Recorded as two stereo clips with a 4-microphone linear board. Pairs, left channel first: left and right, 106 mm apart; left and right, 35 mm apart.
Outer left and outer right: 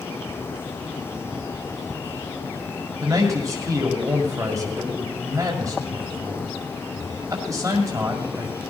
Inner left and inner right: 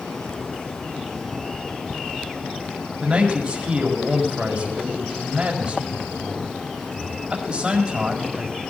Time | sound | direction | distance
3.0 | a man speaking | 30° right (ahead or behind) | 2 m